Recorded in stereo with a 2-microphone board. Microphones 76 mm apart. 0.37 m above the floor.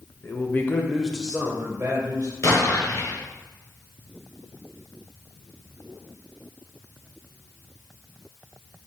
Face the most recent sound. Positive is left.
turn(degrees=45)  # may be behind; listen again after turning